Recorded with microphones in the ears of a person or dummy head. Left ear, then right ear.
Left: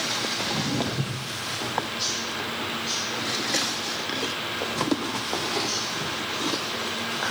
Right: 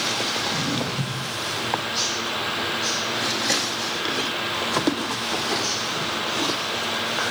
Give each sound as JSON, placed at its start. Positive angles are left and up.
{"t": 0.4, "sound": "footsteps", "side_deg": 65, "distance_m": 7.0}